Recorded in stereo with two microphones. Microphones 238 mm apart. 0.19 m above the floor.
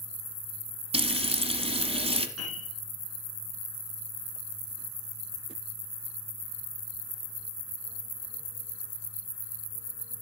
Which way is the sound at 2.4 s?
80° left.